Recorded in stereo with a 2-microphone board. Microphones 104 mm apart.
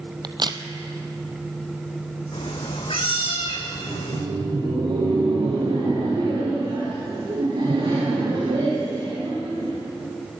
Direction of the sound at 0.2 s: 50° right (ahead or behind).